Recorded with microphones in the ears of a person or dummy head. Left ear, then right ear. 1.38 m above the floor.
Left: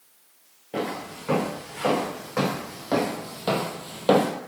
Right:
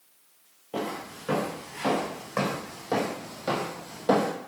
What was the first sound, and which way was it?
Footsteps, centre (ahead or behind).